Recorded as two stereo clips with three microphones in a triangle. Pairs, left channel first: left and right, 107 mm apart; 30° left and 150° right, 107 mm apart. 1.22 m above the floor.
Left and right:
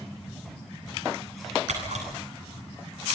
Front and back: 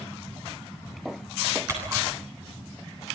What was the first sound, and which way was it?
A camera shutter, 85° right.